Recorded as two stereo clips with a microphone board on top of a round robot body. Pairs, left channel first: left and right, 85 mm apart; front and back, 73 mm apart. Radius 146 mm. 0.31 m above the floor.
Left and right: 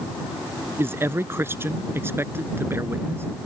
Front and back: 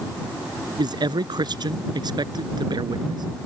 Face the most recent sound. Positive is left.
turn(degrees=-155)